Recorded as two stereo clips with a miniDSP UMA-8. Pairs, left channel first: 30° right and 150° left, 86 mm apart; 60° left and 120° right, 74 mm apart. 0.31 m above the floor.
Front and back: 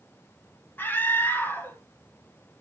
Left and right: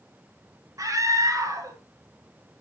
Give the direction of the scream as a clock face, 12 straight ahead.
3 o'clock.